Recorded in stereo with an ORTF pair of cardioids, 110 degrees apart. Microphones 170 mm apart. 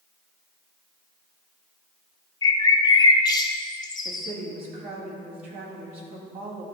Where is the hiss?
No hiss in this recording.